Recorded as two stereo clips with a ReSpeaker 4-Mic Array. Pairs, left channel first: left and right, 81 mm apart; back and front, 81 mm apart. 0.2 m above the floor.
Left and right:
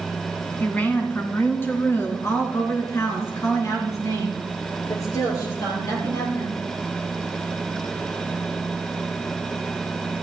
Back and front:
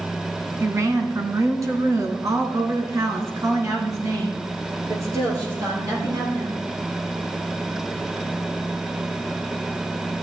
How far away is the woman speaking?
About 1.9 m.